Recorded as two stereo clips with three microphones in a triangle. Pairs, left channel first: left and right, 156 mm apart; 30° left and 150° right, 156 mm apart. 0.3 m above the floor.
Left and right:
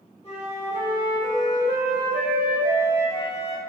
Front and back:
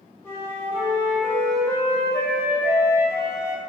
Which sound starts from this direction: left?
A flute, at 0.2 s.